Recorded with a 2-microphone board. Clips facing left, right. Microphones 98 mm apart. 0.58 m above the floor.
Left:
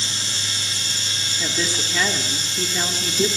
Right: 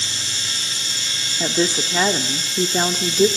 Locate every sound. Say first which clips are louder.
1.4 s a woman speaking: right 7 dB; 35° right (ahead or behind), 1.7 m